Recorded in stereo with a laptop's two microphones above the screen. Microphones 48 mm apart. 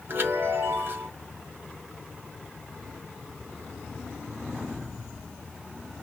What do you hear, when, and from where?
0.1 s a chime: 45° right (ahead or behind), 1.1 m